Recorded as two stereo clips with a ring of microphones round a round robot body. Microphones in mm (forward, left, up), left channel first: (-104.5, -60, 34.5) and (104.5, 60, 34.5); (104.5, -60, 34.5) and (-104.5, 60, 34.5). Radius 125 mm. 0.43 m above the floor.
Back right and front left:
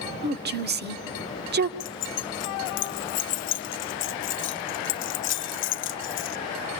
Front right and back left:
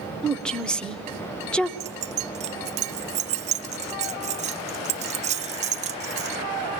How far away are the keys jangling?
About 0.7 m.